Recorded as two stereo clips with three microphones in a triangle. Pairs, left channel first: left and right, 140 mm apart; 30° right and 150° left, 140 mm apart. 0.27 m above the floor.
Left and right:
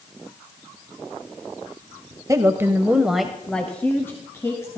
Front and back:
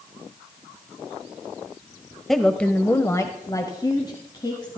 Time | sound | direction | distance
2.3 | a woman speaking | 115° right | 1.2 m